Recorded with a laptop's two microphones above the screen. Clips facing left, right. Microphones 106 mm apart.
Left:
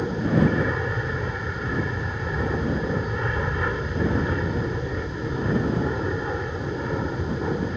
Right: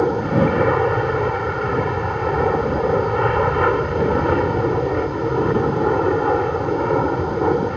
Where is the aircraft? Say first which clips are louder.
Right 5 dB; 65° right (ahead or behind).